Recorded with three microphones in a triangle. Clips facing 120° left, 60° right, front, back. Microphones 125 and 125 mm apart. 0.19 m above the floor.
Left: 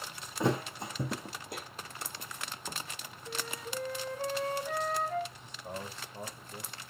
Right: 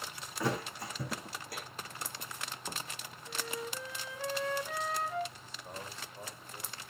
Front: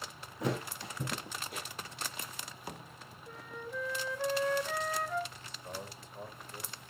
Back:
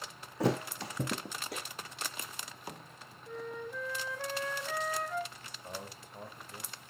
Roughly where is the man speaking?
Behind left.